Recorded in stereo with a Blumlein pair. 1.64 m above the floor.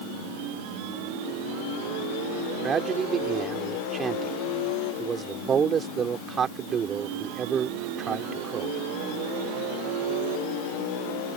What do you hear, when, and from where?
2.6 s a man speaking: 25° right